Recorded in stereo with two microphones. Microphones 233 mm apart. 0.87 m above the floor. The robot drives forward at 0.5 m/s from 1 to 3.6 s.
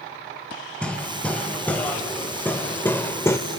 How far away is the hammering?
About 2 m.